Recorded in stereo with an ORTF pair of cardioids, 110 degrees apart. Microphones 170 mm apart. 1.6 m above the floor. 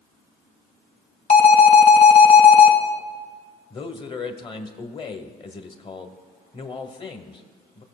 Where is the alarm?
40° left, 2.0 m.